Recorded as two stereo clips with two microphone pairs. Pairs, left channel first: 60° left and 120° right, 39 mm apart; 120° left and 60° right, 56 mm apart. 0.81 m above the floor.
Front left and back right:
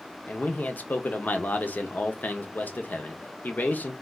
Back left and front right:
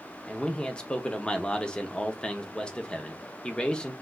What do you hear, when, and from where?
0.3 s a man speaking: 55° left, 0.6 m